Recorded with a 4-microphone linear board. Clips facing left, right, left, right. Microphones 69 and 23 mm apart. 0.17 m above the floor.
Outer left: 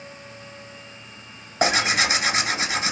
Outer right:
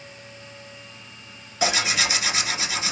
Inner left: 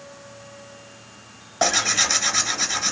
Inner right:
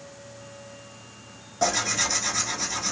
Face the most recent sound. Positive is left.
turn(degrees=40)  # may be behind; listen again after turning